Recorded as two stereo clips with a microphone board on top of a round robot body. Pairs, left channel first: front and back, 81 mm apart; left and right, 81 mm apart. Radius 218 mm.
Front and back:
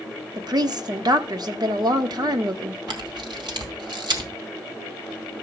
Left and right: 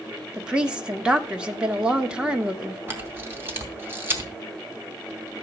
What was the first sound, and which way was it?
A woman speaking, 165° right.